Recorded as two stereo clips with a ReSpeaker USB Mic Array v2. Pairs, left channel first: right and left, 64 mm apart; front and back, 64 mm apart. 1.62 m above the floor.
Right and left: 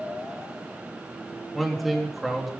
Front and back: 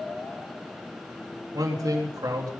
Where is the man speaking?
Straight behind, 3.5 m.